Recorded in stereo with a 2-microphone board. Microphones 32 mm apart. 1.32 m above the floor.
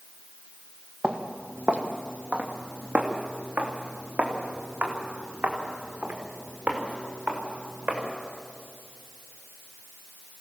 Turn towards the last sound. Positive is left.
turn(degrees=-55)  # may be behind; listen again after turning